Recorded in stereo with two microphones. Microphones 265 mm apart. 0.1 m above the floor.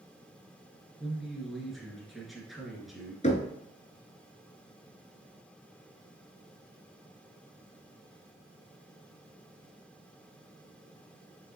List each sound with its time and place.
1.0 s a man speaking: centre (ahead or behind), 1.2 m
3.2 s knocking: 25° left (ahead or behind), 0.8 m